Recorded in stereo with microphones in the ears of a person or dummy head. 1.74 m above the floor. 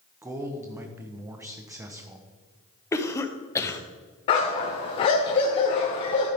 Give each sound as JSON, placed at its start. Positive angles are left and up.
{"t": 0.2, "sound": "a man speaking", "side_deg": -15, "distance_m": 1.3}
{"t": 2.9, "sound": "a cough", "side_deg": 10, "distance_m": 1.1}
{"t": 4.3, "sound": "a dog barking", "side_deg": 30, "distance_m": 1.6}